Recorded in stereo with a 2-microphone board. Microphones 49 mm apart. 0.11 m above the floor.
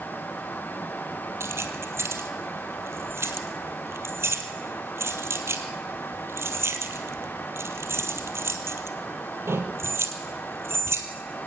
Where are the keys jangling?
65° right (ahead or behind), 2 m.